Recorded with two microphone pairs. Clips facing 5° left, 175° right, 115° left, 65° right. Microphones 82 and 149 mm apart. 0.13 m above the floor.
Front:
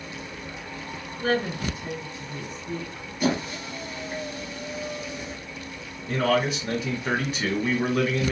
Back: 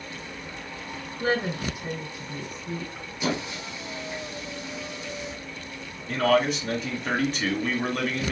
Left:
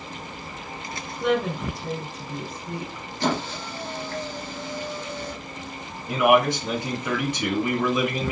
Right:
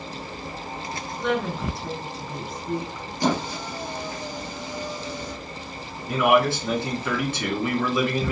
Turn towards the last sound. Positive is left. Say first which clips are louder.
# back 1 dB, left 1 dB
turn(degrees=80)